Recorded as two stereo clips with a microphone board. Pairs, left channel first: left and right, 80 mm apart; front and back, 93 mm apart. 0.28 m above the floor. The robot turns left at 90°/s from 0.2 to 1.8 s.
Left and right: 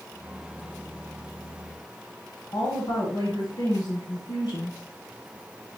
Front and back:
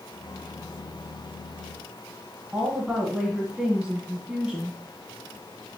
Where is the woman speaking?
100° left, 2 m.